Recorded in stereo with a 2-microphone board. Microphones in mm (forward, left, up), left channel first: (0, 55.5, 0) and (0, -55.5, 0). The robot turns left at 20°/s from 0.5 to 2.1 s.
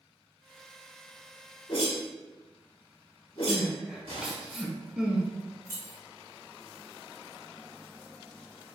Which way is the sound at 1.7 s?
50° left (ahead or behind).